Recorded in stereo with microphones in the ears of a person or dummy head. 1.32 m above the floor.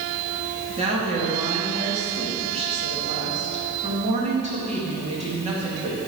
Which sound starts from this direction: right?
A woman speaking, at 0.8 s.